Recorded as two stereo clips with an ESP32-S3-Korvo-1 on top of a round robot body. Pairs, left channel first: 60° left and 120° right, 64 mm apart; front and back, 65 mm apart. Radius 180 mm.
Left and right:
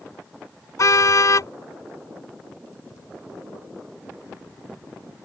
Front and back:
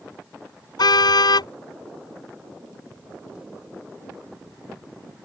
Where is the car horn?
15° left.